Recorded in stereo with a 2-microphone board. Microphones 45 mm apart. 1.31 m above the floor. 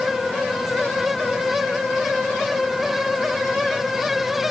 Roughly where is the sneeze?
I don't hear a sneeze.